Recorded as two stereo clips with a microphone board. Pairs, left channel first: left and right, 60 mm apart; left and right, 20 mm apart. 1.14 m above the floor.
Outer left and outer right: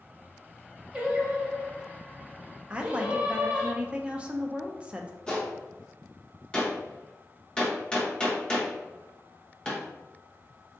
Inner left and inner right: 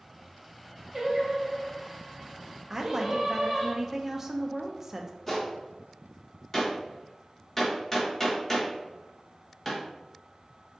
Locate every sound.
0.9 s singing: 15° right (ahead or behind), 1.0 m
2.7 s a woman speaking: 20° right (ahead or behind), 0.6 m
5.3 s a gunshot: 15° left (ahead or behind), 1.1 m